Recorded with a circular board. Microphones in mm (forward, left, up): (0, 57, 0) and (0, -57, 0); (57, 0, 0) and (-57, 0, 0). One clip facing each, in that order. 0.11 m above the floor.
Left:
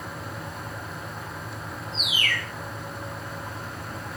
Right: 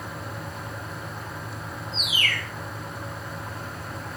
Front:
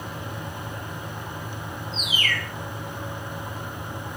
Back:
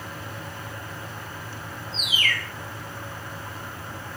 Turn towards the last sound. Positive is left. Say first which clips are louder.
# even, even
turn(degrees=-100)